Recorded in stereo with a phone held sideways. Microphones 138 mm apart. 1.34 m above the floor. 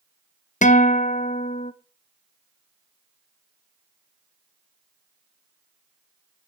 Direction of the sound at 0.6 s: 65° left (ahead or behind).